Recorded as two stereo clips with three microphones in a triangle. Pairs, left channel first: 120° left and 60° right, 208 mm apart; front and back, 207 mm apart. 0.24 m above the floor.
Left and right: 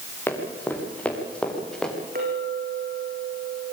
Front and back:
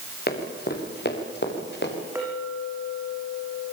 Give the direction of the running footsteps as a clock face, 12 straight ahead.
11 o'clock.